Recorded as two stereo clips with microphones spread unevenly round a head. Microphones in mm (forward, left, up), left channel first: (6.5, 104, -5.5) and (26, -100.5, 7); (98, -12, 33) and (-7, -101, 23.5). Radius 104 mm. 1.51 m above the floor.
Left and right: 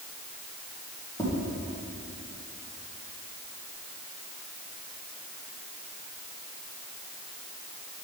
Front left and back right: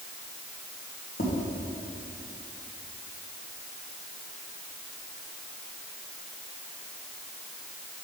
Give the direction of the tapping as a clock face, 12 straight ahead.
11 o'clock.